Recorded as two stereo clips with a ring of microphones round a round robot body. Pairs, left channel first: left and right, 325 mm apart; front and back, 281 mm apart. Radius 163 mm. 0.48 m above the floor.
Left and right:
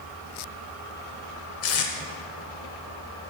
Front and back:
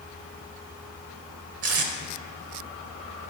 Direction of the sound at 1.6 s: 140° left.